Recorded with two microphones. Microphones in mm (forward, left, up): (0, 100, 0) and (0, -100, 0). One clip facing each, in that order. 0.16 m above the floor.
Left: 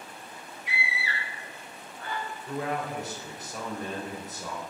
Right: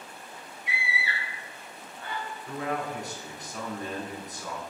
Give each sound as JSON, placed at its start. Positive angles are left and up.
{"t": 0.7, "sound": "a scream", "side_deg": -25, "distance_m": 1.1}
{"t": 2.5, "sound": "a man speaking", "side_deg": 0, "distance_m": 1.2}